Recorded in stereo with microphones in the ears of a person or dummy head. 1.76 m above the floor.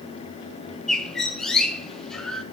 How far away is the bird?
About 1.1 m.